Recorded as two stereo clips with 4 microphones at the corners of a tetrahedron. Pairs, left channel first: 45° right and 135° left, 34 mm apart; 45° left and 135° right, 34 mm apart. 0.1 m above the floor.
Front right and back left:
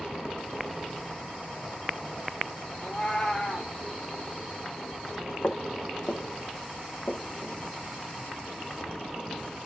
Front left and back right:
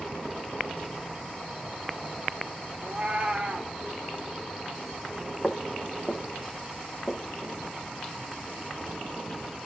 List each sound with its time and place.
2.8 s a cat meowing: 95° right, 1.3 m
5.4 s footsteps: 20° right, 1.7 m; by 7.6 s 30° right, 3 m